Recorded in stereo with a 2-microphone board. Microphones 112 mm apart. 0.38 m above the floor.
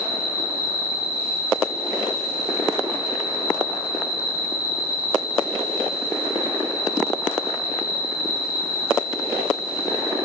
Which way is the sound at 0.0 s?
40° left (ahead or behind).